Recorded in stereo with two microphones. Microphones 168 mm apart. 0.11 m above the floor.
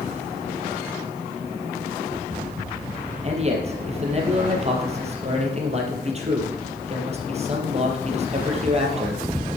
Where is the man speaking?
40° right (ahead or behind), 2.5 m.